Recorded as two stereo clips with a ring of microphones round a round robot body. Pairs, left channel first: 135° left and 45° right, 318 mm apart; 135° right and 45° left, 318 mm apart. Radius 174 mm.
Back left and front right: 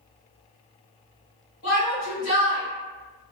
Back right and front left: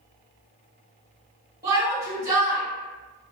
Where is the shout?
120° left, 1.8 m.